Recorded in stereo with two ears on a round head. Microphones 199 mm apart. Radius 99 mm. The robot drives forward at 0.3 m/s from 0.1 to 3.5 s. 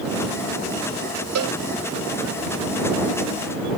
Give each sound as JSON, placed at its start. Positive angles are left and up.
{"t": 1.4, "sound": "a cowbell", "side_deg": -75}